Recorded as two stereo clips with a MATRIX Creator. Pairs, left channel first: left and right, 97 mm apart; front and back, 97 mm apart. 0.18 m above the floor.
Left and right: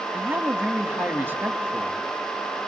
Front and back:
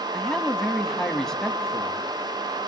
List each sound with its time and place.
0.1 s a man speaking: 75° right, 1.0 m